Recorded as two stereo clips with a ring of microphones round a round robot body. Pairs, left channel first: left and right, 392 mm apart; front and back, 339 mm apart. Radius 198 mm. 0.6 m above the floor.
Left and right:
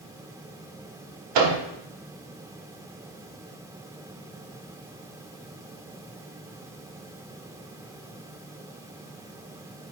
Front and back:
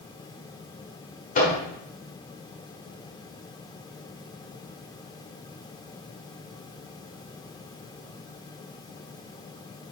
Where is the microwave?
70° right, 1.5 m.